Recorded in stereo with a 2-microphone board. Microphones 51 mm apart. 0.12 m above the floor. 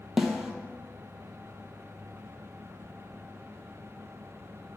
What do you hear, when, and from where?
0.2 s a snare drum: 5° right (ahead or behind), 0.9 m